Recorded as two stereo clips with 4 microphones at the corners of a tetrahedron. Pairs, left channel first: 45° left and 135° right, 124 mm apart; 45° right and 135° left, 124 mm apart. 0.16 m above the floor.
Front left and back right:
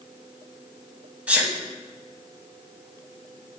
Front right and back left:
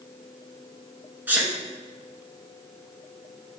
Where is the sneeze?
170° left, 1.0 m.